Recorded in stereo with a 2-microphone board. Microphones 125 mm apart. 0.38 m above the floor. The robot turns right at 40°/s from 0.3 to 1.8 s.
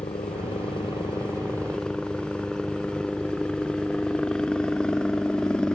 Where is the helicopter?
60° left (ahead or behind); by 5.8 s 5° left (ahead or behind).